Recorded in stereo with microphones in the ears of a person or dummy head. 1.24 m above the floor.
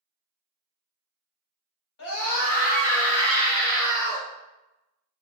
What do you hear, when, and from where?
2.0 s a scream: 60° left (ahead or behind), 1.4 m; by 4.3 s 15° left (ahead or behind), 1.4 m